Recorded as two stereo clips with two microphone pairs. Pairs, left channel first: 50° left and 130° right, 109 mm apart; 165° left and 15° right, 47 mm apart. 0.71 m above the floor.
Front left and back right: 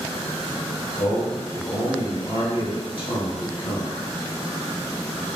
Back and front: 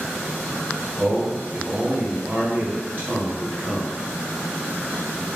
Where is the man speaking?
20° left, 1.4 m.